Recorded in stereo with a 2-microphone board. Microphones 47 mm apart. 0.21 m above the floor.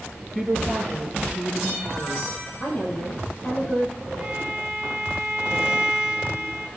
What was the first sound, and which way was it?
A woman speaking, centre (ahead or behind).